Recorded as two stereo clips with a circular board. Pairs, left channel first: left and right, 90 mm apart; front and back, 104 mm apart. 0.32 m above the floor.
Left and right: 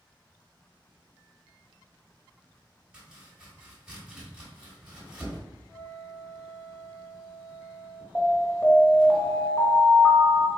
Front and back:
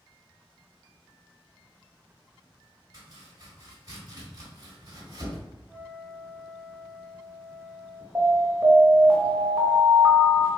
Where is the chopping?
165° right, 1.2 m.